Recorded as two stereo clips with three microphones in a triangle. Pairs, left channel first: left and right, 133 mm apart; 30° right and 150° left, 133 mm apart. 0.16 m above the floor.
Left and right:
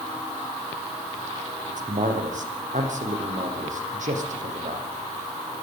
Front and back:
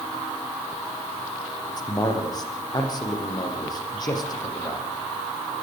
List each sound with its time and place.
1.7 s a man speaking: 85° right, 8 m